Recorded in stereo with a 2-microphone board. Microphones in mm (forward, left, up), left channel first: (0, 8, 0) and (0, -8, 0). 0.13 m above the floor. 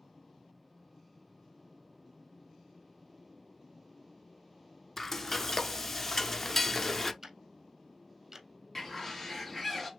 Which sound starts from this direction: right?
Ticking, at 7.2 s.